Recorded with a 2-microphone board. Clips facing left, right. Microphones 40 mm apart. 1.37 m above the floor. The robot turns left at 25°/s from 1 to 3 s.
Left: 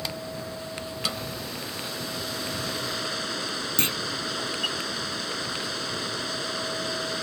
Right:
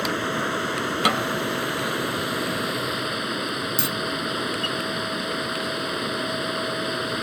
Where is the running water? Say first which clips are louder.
Right 10 dB; 115° right; by 7.2 s 165° right.